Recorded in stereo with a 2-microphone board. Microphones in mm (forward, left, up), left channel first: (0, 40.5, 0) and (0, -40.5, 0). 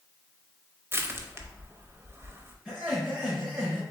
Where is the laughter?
20° right (ahead or behind), 2 m.